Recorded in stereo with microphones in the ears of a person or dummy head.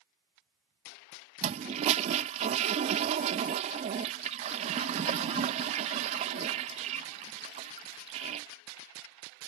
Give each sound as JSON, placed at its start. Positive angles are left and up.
{"t": 1.4, "sound": "a toilet flushing", "side_deg": -35}